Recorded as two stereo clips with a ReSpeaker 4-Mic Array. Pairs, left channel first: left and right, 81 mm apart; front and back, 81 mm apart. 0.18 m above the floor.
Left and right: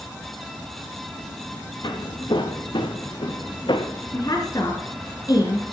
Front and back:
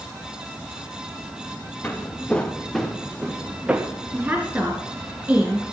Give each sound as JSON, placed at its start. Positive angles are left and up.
{"t": 1.8, "sound": "footsteps", "azimuth_deg": 70, "distance_m": 2.5}
{"t": 4.1, "sound": "a woman speaking", "azimuth_deg": 110, "distance_m": 2.0}